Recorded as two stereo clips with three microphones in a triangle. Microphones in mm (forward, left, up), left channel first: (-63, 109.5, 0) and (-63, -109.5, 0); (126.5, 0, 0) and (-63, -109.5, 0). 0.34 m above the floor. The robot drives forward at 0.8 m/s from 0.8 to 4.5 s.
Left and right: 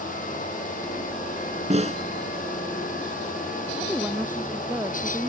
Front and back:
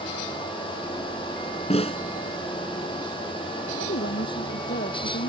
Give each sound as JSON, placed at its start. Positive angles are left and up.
{"t": 1.7, "sound": "a snare drum", "azimuth_deg": -30}
{"t": 3.8, "sound": "a woman speaking", "azimuth_deg": -5}